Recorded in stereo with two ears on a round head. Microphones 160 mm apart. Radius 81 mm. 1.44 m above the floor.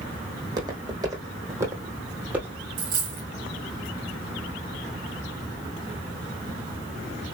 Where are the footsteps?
20° right (ahead or behind), 4 m; by 2.6 s 5° right (ahead or behind), 2.5 m.